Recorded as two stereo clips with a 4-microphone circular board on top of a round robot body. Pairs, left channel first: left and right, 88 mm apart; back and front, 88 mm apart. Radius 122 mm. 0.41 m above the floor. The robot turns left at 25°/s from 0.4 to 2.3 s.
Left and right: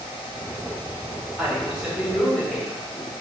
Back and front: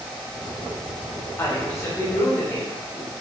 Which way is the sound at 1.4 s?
160° right.